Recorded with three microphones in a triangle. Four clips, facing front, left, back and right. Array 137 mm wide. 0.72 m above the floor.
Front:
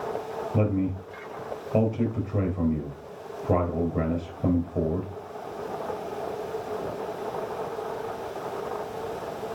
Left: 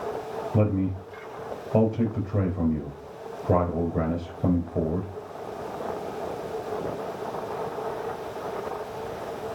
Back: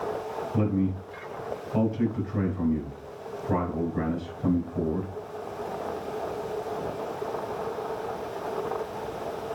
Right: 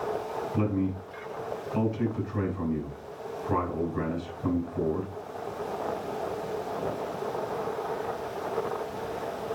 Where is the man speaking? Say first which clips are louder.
Left 4 dB, front 1 dB; 55° left, 3.5 m.